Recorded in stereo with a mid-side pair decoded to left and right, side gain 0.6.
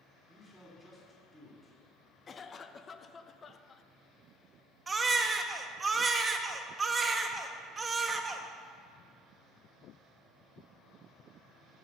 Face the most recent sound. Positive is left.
turn(degrees=-25)